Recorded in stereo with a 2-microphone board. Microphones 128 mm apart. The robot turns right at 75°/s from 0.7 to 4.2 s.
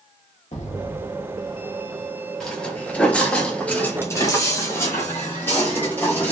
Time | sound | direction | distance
0.5 | an explosion | 95° left | 1.2 m
2.4 | footsteps | 5° left (ahead or behind) | 1.0 m